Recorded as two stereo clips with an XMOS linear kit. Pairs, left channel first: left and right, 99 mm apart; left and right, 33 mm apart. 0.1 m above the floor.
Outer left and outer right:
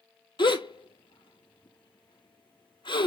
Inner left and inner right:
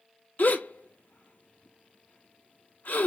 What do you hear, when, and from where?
0.4 s a gasp: 50° left (ahead or behind), 0.6 m